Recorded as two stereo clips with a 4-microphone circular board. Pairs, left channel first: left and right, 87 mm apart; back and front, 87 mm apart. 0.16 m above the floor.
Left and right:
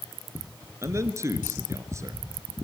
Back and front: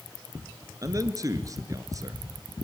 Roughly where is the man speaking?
Ahead right.